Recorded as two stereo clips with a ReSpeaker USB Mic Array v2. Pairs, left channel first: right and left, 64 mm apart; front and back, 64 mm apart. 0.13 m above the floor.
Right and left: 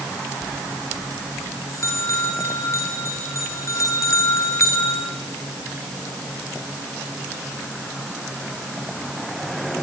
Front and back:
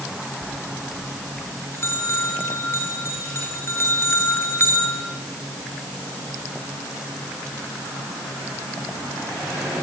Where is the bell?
50° right, 3.5 m.